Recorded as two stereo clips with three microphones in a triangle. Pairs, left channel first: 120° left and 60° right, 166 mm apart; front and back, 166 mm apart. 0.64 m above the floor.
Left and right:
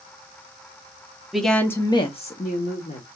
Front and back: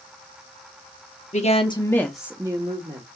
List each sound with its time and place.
1.3 s a woman speaking: 30° left, 1.0 m; by 3.0 s 145° left, 1.1 m